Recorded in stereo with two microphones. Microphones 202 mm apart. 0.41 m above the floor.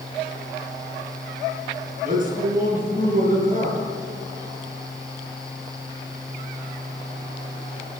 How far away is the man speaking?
About 6.5 m.